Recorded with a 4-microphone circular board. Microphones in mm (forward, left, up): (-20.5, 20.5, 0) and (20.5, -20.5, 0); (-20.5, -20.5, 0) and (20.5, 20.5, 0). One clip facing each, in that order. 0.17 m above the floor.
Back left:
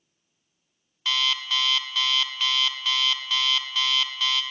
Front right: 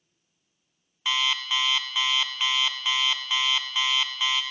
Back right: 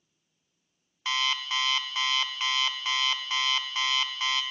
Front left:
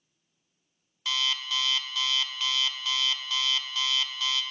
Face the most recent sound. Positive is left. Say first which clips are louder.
# even, back right 2 dB
turn(degrees=-110)